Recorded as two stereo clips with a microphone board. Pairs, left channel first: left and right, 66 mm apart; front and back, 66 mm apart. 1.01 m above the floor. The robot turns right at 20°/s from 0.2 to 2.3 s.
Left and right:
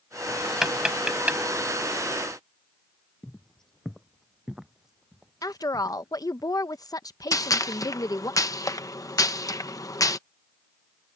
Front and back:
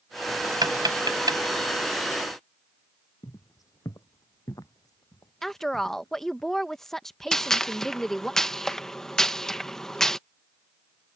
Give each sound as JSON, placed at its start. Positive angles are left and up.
{"t": 0.6, "sound": "tapping", "azimuth_deg": -175}
{"t": 3.2, "sound": "footsteps", "azimuth_deg": 15}
{"t": 5.4, "sound": "a woman speaking", "azimuth_deg": 85}
{"t": 7.3, "sound": "a gunshot", "azimuth_deg": 80}